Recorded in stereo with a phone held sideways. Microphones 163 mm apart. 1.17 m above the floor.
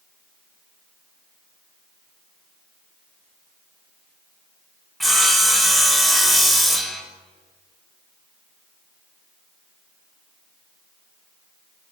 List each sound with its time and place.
5.0 s sawing: centre (ahead or behind), 0.9 m